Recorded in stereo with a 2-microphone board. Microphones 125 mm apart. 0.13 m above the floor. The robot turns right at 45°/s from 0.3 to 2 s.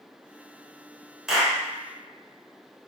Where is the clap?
5° right (ahead or behind), 1.0 m; by 1.6 s 5° left (ahead or behind), 1.0 m.